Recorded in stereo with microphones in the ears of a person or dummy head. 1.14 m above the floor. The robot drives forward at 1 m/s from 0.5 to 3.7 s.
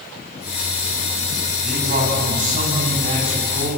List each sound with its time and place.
1.6 s a man speaking: 45° right (ahead or behind), 8 m; by 3.7 s 35° right (ahead or behind), 9.5 m